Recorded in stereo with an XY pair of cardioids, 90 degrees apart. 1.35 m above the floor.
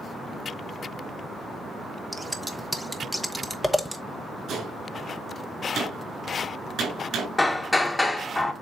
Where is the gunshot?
70° right, 4.5 m.